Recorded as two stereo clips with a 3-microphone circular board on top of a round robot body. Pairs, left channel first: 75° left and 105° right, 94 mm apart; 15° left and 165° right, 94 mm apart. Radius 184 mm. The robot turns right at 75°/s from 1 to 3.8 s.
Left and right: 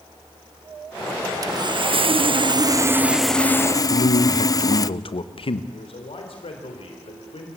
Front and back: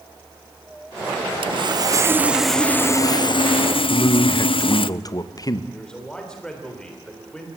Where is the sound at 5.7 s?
100° left, 3.5 m.